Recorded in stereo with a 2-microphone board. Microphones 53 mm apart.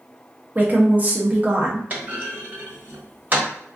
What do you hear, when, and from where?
0.6 s a woman speaking: 30° right (ahead or behind), 1.0 m
1.9 s a clunk: 35° right (ahead or behind), 1.2 m